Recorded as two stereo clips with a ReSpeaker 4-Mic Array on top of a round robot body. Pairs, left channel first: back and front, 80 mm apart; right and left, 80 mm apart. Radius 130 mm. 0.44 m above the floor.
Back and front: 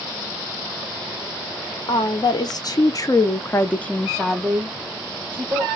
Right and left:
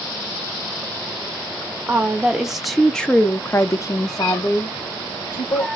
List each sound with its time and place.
1.9 s a woman speaking: 160° left, 1.7 m; by 5.7 s 65° right, 2.0 m